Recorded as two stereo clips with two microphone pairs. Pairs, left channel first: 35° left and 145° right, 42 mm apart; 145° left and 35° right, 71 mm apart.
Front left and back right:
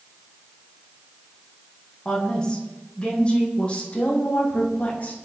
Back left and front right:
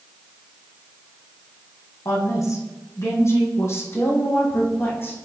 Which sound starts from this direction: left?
A woman speaking, at 2.0 s.